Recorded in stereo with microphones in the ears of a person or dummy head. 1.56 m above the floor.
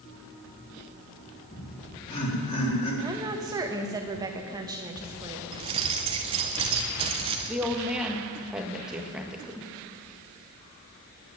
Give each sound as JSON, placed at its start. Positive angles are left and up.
{"t": 1.5, "sound": "laughter", "side_deg": 35, "distance_m": 4.0}
{"t": 3.0, "sound": "a woman speaking", "side_deg": -20, "distance_m": 1.4}
{"t": 5.5, "sound": "keys jangling", "side_deg": -30, "distance_m": 0.7}
{"t": 7.5, "sound": "a woman speaking", "side_deg": 0, "distance_m": 1.6}